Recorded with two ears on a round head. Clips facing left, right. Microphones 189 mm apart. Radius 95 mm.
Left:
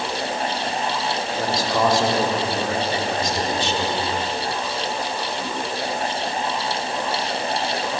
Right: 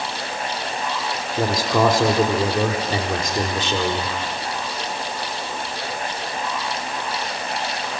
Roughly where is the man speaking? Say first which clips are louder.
Right 4 dB; right.